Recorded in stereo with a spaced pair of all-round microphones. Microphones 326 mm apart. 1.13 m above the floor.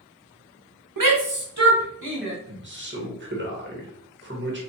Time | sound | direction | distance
1.0 | a shout | 90° right | 0.8 m
2.5 | a man speaking | 35° right (ahead or behind) | 1.2 m